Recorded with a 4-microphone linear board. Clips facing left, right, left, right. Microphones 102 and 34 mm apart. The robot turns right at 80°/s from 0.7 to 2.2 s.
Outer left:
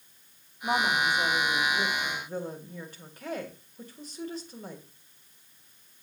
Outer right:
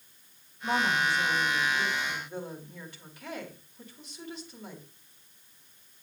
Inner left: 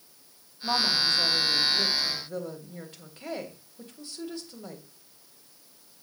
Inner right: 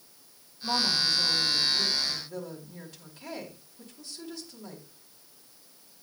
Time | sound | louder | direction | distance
0.6 | a woman speaking | outer left 1 dB, inner left 2 dB | 15° left | 2.5 m